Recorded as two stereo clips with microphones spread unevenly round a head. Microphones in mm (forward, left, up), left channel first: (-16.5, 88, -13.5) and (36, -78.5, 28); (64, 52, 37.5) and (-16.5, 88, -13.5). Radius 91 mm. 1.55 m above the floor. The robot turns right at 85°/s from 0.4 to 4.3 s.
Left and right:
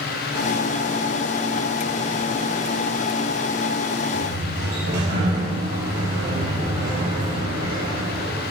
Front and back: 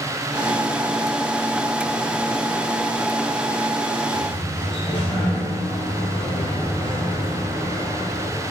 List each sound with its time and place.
4.1 s a sliding door: 115° right, 6 m; by 8.5 s 100° right, 6 m